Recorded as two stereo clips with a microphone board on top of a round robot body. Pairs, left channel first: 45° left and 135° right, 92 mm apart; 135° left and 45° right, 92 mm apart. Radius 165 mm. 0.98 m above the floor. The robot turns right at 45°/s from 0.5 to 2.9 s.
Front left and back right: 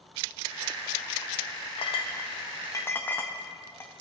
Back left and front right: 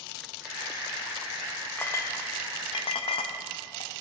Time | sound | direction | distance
1.8 | a clink | 65° left | 0.6 m